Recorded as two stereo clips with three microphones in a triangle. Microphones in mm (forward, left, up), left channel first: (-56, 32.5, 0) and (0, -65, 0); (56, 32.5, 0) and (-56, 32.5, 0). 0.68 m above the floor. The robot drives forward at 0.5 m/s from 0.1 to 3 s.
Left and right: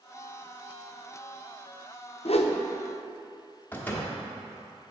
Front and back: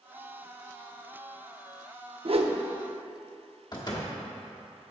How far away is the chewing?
I don't hear chewing.